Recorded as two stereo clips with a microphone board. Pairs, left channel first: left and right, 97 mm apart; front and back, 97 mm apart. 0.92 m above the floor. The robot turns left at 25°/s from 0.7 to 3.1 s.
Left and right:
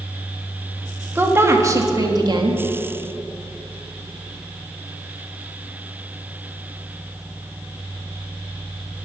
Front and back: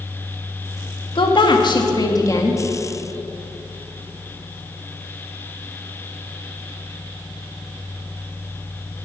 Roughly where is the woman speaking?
Ahead.